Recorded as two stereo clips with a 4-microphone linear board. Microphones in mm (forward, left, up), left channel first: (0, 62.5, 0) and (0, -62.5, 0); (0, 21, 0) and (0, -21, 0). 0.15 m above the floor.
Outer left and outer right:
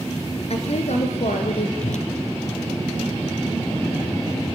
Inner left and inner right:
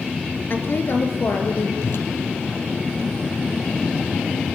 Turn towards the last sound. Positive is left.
turn(degrees=80)